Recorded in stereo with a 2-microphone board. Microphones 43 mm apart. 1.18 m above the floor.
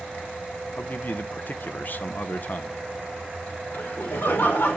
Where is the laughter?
65° left (ahead or behind), 3 m.